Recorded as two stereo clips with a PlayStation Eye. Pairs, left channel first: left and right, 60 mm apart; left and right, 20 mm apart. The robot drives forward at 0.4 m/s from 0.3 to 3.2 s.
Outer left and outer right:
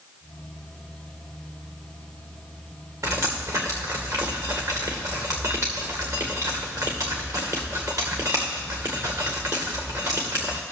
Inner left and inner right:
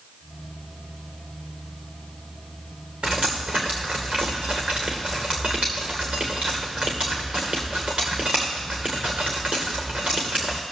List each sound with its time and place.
3.0 s dripping: 45° right (ahead or behind), 2 m